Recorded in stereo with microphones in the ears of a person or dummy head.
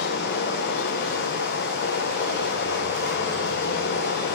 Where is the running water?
50° left (ahead or behind), 0.7 m.